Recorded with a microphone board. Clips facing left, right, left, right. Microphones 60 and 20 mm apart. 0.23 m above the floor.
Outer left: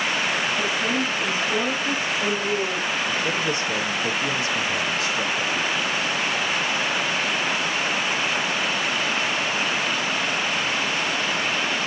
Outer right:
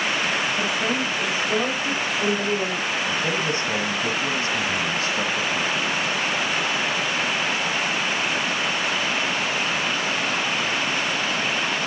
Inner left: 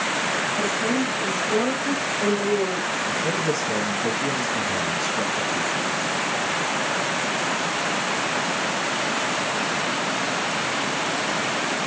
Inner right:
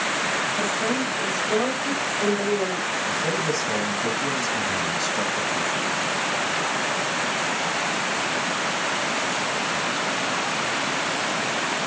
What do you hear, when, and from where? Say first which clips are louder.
0.6 s a woman speaking: even, inner left 1 dB; 25° right (ahead or behind), 4 m; by 3.0 s 35° right (ahead or behind), 6.5 m
3.1 s a man speaking: even, even; 40° right (ahead or behind), 1.5 m